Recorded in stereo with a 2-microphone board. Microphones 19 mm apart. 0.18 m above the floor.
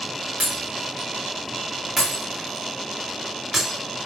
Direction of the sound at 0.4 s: 25° right (ahead or behind).